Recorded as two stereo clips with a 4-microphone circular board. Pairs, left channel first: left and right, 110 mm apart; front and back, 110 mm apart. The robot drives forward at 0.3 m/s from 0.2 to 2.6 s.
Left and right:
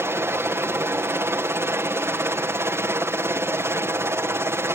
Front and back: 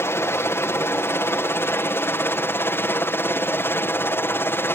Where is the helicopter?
45° right; by 4.7 s 50° right.